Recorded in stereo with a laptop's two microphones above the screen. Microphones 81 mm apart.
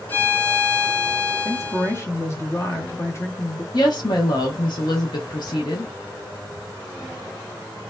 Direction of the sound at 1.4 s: 30° left (ahead or behind).